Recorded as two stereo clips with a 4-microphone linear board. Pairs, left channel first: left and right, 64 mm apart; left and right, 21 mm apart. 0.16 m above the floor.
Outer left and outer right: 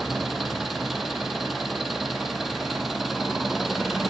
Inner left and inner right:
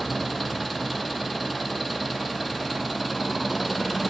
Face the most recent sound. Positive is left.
turn(degrees=0)  # may be behind; listen again after turning